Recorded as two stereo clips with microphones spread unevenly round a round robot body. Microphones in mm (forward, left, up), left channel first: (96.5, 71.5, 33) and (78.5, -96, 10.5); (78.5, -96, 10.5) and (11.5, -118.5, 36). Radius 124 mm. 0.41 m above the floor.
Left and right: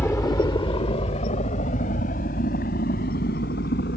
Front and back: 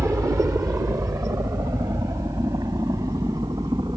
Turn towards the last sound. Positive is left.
turn(degrees=130)